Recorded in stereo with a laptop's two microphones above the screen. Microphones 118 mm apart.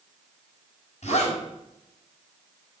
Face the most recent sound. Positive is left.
turn(degrees=70)  # may be behind; listen again after turning